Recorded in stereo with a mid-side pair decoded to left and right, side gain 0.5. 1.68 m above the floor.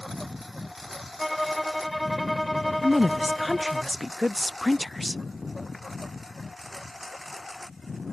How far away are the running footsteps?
No running footsteps in this recording.